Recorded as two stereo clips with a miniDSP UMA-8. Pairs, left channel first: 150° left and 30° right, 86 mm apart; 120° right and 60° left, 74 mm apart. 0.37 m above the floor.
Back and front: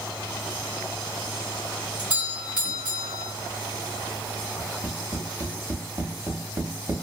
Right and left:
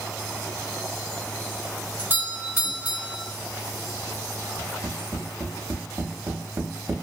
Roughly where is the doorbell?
Ahead left.